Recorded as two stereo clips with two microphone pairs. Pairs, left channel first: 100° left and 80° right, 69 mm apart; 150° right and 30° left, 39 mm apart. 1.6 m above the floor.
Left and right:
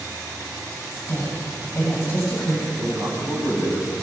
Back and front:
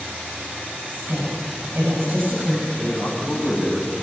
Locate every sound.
0.9 s a woman speaking: 60° left, 7.5 m
2.7 s a man speaking: 130° left, 7.5 m